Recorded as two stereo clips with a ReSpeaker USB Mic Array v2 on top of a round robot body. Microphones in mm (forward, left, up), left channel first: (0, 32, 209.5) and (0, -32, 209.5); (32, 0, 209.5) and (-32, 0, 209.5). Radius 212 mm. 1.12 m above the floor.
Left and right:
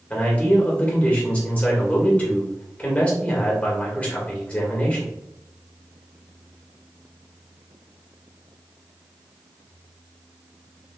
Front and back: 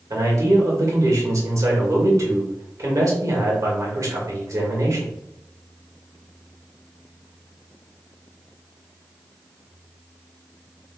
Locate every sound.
0.1 s a man speaking: 155° left, 1.8 m